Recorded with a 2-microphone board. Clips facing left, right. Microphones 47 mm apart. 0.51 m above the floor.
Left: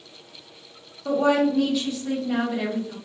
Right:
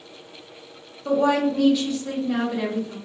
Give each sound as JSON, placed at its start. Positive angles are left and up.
{"t": 1.1, "sound": "a woman speaking", "side_deg": 15, "distance_m": 1.1}